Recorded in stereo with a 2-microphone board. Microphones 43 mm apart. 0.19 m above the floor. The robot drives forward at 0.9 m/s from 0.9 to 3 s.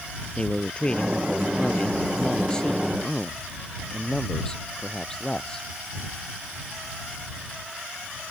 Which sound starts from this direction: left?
A man speaking, at 0.4 s.